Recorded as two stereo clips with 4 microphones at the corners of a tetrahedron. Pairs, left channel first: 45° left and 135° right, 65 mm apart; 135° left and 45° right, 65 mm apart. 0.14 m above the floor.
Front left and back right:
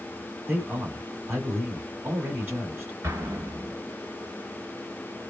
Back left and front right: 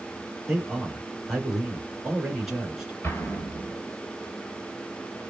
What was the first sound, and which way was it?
A man speaking, 125° right.